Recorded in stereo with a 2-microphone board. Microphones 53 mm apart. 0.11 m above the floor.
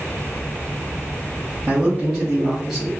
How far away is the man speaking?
About 2.0 m.